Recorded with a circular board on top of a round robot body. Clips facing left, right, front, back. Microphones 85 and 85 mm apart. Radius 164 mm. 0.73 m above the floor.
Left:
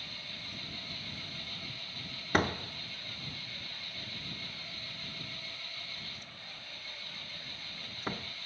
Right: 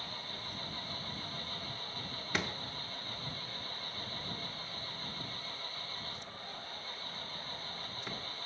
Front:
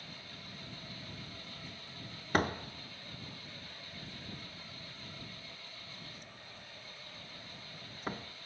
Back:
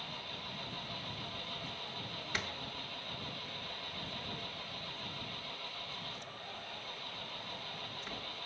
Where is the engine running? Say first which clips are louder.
Right 4 dB, back 6 dB; 145° right.